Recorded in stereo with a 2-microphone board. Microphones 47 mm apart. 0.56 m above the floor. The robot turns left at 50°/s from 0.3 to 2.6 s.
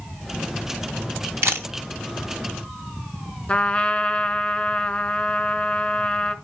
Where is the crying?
I don't hear crying.